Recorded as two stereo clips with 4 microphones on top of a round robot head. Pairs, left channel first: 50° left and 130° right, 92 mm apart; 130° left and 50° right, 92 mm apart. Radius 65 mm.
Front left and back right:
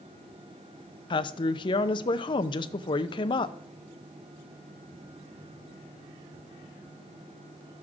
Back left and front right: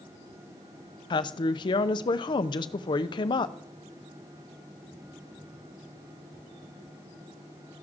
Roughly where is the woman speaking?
Left.